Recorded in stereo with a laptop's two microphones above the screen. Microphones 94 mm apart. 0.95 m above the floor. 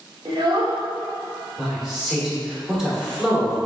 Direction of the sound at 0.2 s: 55° right (ahead or behind).